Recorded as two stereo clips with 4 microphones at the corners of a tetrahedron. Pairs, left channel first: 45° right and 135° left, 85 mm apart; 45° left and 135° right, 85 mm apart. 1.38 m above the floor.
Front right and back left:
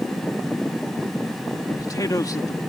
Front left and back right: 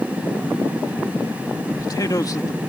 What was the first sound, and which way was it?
A man speaking, straight ahead.